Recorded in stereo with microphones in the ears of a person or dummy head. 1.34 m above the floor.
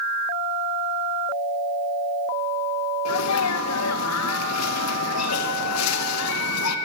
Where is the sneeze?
80° left, 1.4 m.